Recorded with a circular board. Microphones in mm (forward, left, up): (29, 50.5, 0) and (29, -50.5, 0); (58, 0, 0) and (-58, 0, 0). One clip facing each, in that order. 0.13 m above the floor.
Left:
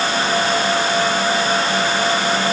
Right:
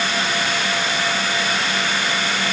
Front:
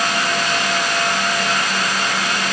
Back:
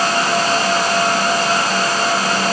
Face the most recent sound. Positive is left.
No sound to turn to.